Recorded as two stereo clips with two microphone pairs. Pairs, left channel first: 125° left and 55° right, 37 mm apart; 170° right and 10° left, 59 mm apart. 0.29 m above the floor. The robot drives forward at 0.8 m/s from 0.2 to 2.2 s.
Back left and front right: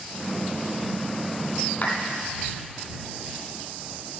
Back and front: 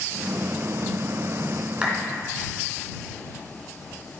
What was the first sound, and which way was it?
A clap, 80° left.